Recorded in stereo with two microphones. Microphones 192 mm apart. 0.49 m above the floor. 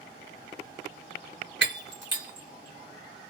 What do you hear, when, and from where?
1.6 s breaking glass: 70° right (ahead or behind), 1.2 m